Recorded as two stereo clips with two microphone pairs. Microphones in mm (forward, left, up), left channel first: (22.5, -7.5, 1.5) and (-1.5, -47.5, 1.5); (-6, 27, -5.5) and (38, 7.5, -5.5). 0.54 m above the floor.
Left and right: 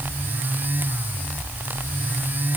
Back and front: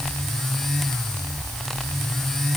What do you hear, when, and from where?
Only background noise.